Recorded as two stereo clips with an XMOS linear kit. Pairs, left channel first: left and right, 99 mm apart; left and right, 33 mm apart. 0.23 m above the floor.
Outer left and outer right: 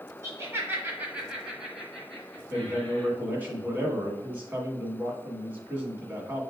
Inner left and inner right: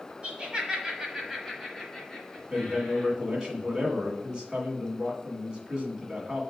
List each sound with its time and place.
0.2 s laughter: 35° right (ahead or behind), 1.3 m; by 3.1 s 15° left (ahead or behind), 2 m
2.5 s a man speaking: 20° right (ahead or behind), 1.8 m